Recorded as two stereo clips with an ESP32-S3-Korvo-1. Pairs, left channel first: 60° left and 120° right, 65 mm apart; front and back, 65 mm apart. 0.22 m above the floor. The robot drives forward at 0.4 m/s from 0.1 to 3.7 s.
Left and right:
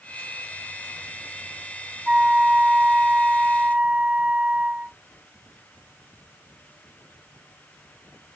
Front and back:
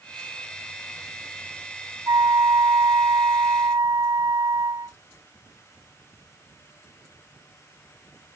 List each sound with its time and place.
2.1 s a flute: 160° left; by 5.0 s 165° left